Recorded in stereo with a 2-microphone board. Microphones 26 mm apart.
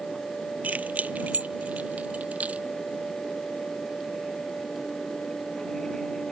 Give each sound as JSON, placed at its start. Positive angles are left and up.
{"t": 0.6, "sound": "keys jangling", "side_deg": -80}